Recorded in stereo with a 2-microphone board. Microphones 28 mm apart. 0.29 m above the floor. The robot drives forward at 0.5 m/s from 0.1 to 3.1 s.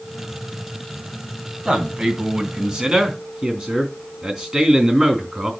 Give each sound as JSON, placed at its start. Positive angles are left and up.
{"t": 1.6, "sound": "a man speaking", "side_deg": -30, "distance_m": 3.0}